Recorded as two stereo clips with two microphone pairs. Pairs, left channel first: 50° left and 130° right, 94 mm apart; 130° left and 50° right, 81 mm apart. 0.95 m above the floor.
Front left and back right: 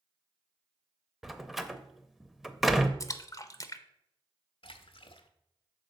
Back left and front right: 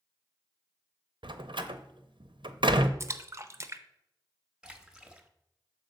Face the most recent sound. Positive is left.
turn(degrees=25)